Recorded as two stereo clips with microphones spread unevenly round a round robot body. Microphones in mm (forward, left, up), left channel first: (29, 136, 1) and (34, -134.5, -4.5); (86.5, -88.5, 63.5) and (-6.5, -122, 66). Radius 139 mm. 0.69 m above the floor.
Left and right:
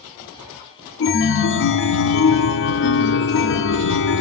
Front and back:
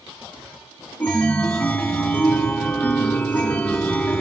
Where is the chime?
85° left, 0.5 m.